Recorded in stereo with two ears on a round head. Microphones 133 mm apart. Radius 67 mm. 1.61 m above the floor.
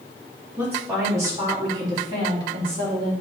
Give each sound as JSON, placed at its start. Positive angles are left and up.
{"t": 0.6, "sound": "a woman speaking", "side_deg": -15, "distance_m": 3.5}